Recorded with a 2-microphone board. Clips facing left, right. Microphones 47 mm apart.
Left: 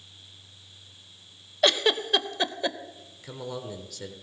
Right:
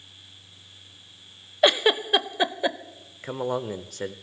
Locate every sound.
1.6 s a giggle: 15° right (ahead or behind), 0.6 m
3.2 s a man speaking: 40° right (ahead or behind), 1.0 m